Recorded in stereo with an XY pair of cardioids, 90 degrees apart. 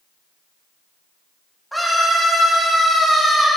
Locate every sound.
1.7 s a scream: 10° right, 2.5 m